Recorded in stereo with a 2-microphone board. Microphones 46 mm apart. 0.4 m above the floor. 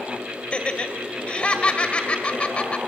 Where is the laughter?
25° left (ahead or behind), 1.9 m.